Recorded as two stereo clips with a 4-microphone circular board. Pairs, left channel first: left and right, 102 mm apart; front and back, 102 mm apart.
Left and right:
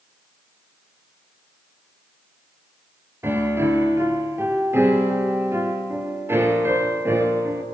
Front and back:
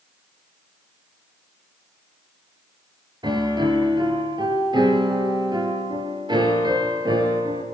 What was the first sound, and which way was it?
A piano, 150° right.